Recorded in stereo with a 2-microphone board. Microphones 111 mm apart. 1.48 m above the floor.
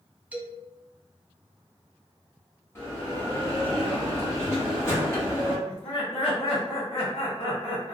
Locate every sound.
0.3 s a man speaking: 15° right (ahead or behind), 0.7 m
2.8 s a bell: 25° left (ahead or behind), 1.1 m
5.7 s laughter: 60° left (ahead or behind), 0.8 m